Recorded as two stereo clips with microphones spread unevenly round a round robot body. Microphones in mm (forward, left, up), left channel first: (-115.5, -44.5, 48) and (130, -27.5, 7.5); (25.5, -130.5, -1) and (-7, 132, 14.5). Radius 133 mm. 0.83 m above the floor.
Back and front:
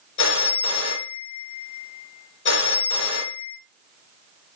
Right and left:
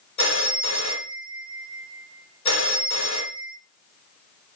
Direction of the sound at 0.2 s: 130° right.